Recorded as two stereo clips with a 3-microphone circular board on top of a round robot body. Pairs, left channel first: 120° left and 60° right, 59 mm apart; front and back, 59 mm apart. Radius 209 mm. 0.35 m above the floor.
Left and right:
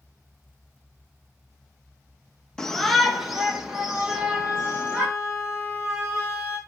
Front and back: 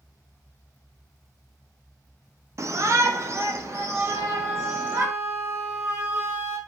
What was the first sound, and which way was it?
A shout, 160° right.